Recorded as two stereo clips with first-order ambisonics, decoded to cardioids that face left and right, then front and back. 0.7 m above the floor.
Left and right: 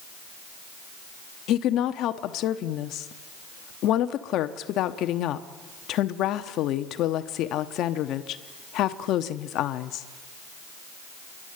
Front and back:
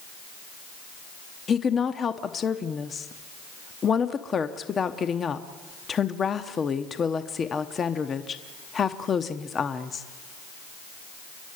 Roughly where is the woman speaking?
Ahead left.